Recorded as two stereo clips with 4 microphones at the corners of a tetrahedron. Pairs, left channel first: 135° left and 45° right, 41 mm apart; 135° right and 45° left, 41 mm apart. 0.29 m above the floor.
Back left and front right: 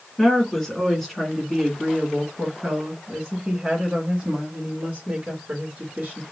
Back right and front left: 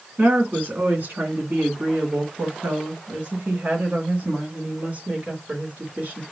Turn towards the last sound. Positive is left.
turn(degrees=0)